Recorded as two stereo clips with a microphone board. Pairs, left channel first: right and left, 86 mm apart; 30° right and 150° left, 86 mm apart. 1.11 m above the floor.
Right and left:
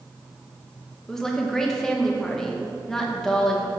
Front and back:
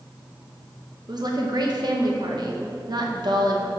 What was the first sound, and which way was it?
A woman speaking, 175° right.